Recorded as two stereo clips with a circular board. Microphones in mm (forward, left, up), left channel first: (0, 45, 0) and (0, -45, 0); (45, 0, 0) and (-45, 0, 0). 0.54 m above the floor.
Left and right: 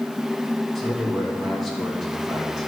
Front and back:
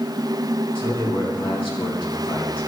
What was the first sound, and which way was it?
A man speaking, straight ahead.